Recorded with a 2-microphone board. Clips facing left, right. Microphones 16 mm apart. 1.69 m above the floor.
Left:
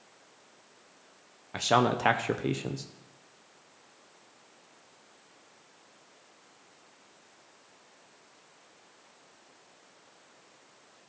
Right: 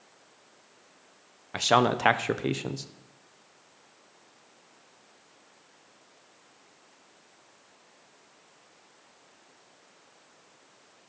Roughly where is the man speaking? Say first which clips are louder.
Right 2 dB; centre.